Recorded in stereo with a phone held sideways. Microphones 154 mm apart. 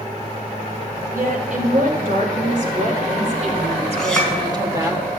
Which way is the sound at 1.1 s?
70° right (ahead or behind).